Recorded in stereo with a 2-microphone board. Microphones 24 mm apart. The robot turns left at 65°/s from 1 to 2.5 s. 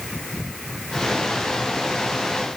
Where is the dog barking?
No dog barking in this recording.